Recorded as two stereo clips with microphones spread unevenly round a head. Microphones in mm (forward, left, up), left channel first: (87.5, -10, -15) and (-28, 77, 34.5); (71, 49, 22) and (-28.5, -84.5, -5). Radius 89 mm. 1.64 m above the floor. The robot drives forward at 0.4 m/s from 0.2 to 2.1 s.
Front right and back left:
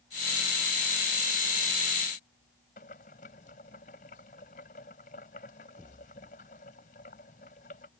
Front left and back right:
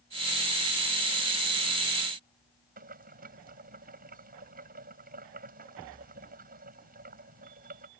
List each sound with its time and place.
2.8 s boiling: 90° right